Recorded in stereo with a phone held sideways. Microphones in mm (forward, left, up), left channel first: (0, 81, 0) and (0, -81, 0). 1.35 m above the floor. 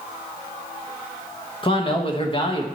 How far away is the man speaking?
About 1.2 m.